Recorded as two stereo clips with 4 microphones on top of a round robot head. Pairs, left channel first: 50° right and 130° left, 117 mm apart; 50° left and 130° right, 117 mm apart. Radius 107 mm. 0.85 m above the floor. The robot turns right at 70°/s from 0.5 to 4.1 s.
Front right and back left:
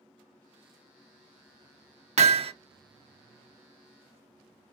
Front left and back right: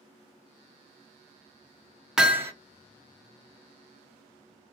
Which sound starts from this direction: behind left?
Hammering, at 2.2 s.